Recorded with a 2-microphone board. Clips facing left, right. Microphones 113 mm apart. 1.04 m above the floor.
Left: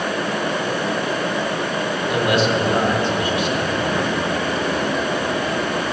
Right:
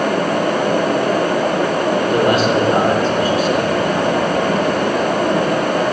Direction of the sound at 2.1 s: 45° right (ahead or behind).